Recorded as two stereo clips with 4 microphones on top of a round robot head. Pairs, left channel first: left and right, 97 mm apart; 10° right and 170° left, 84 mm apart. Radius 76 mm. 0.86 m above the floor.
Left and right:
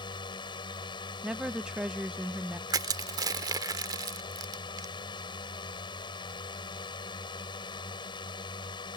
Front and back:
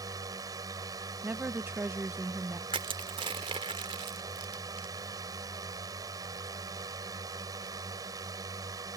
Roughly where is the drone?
Behind left.